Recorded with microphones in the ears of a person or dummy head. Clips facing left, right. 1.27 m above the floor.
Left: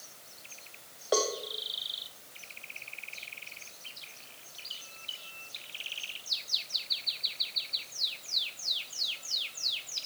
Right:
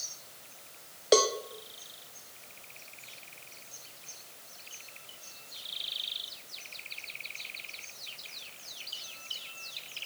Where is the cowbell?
25° right (ahead or behind), 0.5 m.